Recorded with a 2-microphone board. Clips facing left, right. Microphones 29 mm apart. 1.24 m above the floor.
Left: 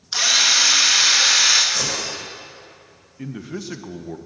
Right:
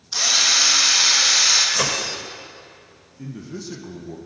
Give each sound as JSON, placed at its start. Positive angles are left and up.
{"t": 0.1, "sound": "a drill", "side_deg": 35, "distance_m": 2.0}
{"t": 1.7, "sound": "breaking glass", "side_deg": -60, "distance_m": 1.7}
{"t": 3.2, "sound": "a man speaking", "side_deg": 45, "distance_m": 1.3}